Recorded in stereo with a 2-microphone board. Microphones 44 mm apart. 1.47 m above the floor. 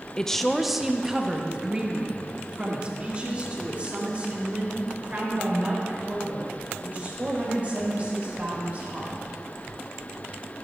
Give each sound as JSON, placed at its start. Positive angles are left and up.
{"t": 0.2, "sound": "a woman speaking", "side_deg": 15, "distance_m": 0.6}